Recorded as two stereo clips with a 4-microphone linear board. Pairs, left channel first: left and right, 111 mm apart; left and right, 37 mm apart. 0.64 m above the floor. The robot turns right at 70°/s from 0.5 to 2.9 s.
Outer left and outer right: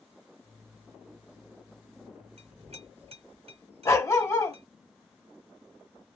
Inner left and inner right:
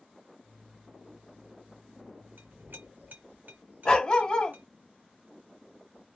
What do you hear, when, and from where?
2.4 s a clink: 75° right (ahead or behind), 1.7 m; by 4.7 s 65° right (ahead or behind), 1.7 m
3.9 s a dog barking: 25° left (ahead or behind), 0.8 m